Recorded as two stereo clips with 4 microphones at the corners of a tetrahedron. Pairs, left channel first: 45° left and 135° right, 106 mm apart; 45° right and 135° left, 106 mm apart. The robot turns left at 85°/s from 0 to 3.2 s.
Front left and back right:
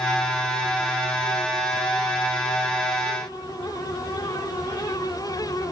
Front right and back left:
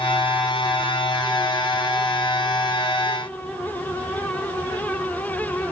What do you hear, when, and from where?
Only background noise.